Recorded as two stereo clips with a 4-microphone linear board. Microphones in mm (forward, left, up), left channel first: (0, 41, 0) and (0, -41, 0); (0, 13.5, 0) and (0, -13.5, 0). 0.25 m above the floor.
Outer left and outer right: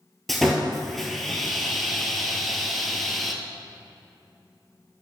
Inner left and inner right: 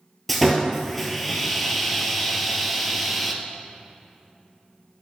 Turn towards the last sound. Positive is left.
turn(degrees=0)  # may be behind; listen again after turning